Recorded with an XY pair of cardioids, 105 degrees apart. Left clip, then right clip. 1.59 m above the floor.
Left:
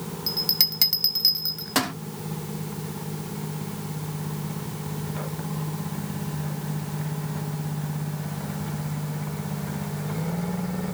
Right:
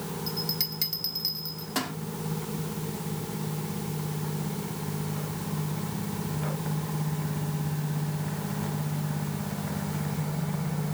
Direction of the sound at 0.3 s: 55° left.